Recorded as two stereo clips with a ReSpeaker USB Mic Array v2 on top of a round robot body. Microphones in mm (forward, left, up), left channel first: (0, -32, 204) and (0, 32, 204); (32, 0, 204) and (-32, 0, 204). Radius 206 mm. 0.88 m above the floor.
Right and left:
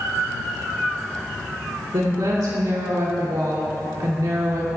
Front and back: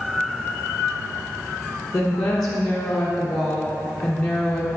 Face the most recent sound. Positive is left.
turn(degrees=80)